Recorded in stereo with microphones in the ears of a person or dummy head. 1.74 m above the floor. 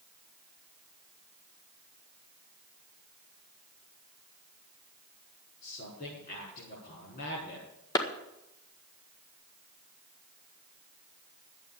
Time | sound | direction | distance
5.6 | a man speaking | 45° left (ahead or behind) | 5.5 m
8.0 | a clap | 20° left (ahead or behind) | 1.6 m